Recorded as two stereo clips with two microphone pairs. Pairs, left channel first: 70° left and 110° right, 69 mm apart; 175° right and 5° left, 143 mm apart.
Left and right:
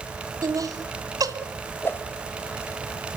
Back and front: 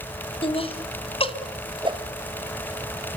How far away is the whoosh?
About 1.9 m.